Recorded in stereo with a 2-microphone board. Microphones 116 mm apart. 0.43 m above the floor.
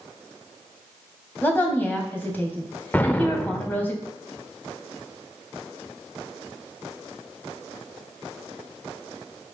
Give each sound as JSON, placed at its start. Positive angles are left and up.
{"t": 1.4, "sound": "a woman speaking", "side_deg": 15, "distance_m": 3.0}
{"t": 2.9, "sound": "an explosion", "side_deg": 15, "distance_m": 0.6}